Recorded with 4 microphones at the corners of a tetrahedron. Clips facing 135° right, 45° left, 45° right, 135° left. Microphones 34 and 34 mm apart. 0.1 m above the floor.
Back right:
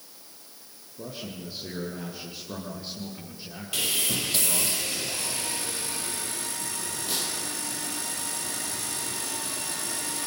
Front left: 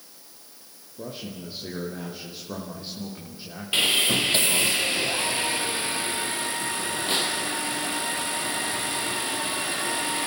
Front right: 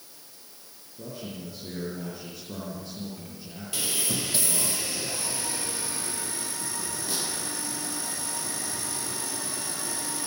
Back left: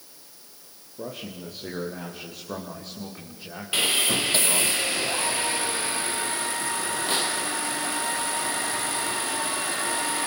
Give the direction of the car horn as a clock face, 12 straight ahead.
I don't hear a car horn.